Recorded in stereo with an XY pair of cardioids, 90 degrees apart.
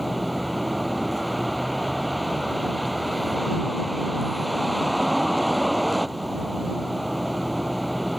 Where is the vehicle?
5° right.